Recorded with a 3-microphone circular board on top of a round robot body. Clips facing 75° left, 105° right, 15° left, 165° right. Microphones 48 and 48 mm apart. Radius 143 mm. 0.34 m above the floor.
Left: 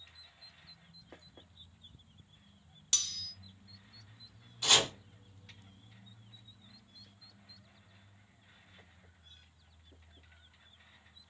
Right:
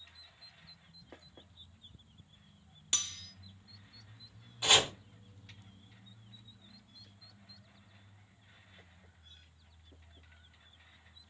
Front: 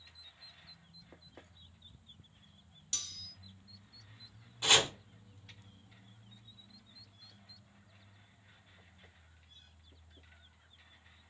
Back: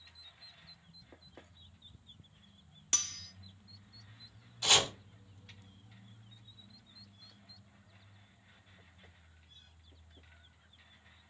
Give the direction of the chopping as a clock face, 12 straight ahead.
1 o'clock.